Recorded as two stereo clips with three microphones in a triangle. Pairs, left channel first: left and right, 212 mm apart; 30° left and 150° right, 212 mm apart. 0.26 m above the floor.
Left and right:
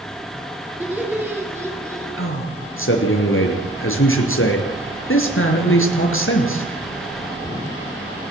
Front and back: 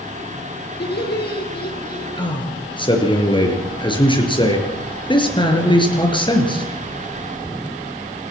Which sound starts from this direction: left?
A man speaking, at 2.2 s.